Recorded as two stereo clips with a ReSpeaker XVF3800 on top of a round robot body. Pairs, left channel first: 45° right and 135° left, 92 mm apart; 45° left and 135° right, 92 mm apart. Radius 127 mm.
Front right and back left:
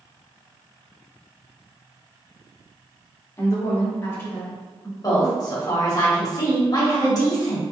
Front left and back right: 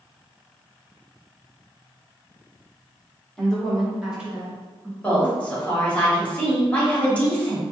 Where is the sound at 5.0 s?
25° right, 1.8 m.